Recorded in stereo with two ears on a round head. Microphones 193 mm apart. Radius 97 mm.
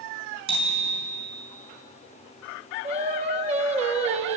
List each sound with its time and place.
0.5 s a bicycle bell: 25° right (ahead or behind), 4.5 m
2.8 s singing: 30° right (ahead or behind), 0.8 m